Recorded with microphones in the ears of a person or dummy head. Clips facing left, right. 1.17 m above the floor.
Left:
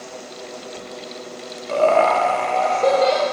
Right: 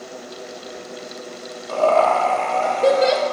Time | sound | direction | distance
1.7 | laughter | 30° left (ahead or behind) | 1.0 m